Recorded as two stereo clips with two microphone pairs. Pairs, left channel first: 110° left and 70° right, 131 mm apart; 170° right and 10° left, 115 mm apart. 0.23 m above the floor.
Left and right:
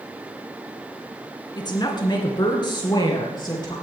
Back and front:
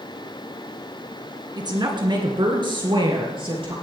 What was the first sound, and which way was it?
A woman speaking, 55° left.